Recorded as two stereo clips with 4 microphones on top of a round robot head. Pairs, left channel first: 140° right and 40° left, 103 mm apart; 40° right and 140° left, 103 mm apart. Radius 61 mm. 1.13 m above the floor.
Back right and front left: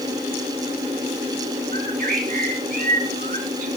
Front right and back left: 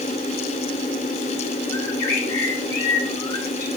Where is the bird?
20° left, 6 m.